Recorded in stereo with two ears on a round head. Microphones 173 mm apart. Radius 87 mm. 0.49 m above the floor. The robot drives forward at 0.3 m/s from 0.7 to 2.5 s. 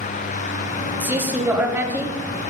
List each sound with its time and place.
1.0 s a man speaking: 10° right (ahead or behind), 2 m